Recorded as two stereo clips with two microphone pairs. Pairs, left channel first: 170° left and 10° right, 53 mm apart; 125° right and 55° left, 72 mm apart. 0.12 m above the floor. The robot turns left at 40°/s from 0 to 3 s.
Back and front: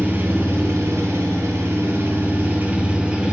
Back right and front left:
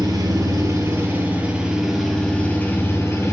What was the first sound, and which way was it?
An engine running, 40° left.